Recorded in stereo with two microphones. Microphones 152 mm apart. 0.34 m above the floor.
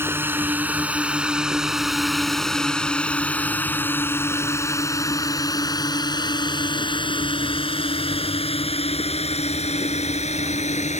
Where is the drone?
15° right (ahead or behind); by 11.0 s 50° left (ahead or behind).